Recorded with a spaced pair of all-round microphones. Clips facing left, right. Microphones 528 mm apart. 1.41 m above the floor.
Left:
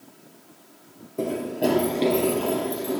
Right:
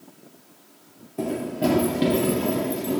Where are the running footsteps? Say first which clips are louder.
Even; 15° right (ahead or behind), 1.6 m; by 3.0 s 50° right (ahead or behind), 2 m.